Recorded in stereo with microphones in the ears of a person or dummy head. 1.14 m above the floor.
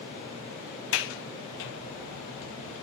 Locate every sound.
0.9 s a sliding door: 65° left (ahead or behind), 1.5 m